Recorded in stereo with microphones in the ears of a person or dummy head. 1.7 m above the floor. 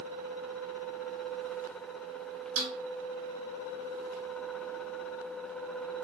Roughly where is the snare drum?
Right.